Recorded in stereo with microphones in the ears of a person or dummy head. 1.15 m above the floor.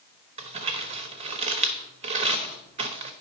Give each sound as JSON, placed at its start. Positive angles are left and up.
{"t": 0.4, "sound": "crumpling", "side_deg": -35, "distance_m": 1.0}